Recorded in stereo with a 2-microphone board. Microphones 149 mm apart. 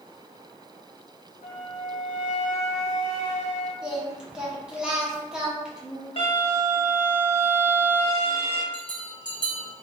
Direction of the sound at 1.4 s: 60° left (ahead or behind).